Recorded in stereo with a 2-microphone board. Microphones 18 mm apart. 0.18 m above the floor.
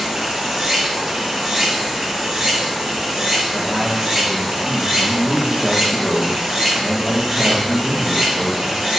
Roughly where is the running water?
Right.